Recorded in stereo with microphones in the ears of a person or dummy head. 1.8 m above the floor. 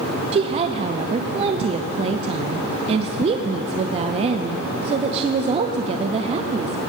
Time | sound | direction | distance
0.3 | a woman speaking | 30° right (ahead or behind) | 0.5 m